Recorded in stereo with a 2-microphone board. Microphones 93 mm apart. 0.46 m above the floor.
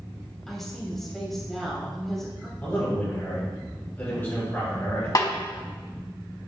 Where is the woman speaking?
5° left (ahead or behind), 2.5 m.